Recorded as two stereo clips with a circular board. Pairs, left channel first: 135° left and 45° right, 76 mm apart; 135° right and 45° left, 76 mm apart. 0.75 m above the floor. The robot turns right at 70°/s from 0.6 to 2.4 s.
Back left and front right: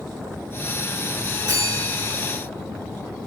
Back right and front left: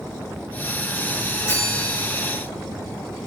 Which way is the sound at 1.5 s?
80° right.